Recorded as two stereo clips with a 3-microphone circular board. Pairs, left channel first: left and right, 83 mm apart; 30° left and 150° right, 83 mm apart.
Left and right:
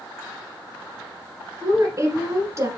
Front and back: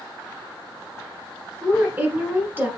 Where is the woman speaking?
95° right, 1.4 m.